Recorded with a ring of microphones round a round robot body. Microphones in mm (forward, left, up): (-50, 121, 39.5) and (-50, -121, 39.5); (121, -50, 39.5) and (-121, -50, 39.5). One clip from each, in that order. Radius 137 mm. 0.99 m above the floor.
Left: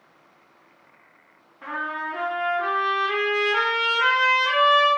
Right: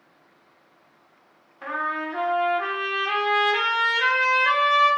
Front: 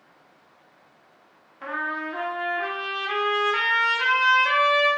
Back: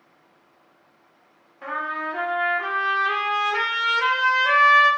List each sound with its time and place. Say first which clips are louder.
1.6 s a trumpet: right 2 dB, back 1 dB; 50° right, 0.6 m